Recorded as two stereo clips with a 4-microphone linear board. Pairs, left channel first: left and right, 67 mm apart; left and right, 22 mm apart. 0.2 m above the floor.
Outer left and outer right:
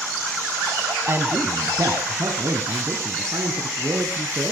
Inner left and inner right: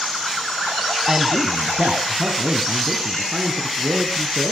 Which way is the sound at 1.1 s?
35° right (ahead or behind).